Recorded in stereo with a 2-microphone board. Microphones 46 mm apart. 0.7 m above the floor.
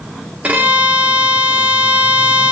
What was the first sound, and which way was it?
A violin, 30° right (ahead or behind).